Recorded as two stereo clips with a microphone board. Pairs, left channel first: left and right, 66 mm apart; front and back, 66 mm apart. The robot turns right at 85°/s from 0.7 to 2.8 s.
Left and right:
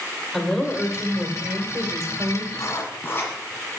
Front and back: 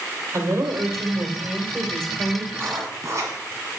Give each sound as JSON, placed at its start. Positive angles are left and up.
{"t": 0.3, "sound": "a woman speaking", "azimuth_deg": 170, "distance_m": 1.8}
{"t": 2.5, "sound": "writing", "azimuth_deg": 125, "distance_m": 1.7}